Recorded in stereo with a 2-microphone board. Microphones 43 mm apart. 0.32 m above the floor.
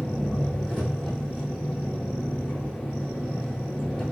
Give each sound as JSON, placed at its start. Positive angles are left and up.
{"t": 0.0, "sound": "an engine running", "side_deg": 10, "distance_m": 5.0}